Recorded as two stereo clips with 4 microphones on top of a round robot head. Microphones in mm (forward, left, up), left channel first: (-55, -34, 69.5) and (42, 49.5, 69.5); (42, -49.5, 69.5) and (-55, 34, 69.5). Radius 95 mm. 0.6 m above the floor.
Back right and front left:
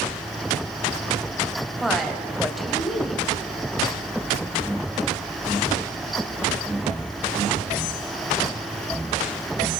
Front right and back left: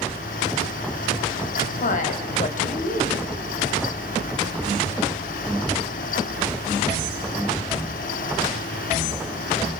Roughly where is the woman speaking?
Ahead right.